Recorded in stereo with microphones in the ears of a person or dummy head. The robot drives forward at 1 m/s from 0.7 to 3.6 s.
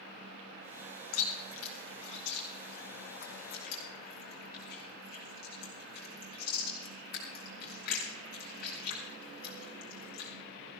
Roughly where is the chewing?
Left.